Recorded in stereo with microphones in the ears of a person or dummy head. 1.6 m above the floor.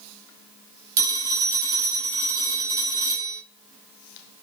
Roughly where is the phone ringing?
Right.